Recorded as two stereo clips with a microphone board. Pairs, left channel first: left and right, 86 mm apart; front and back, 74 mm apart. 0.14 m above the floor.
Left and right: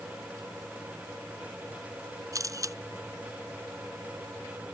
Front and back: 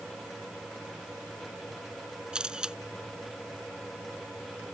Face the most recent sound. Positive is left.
turn(degrees=-105)